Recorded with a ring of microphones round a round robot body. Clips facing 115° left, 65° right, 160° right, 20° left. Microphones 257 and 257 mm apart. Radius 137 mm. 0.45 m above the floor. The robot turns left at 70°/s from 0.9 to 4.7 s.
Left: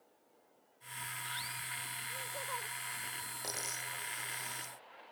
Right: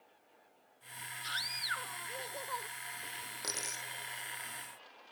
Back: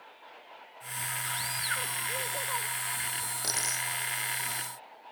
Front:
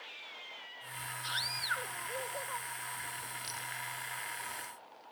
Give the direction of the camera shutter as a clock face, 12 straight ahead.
No camera shutter in this recording.